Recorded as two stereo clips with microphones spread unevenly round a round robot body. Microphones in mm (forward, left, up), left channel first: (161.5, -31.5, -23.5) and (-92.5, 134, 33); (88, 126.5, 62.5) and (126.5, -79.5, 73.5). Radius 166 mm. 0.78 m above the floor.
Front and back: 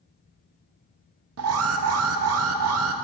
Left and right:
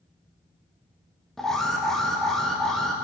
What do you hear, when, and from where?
1.4 s an alarm: 175° right, 0.5 m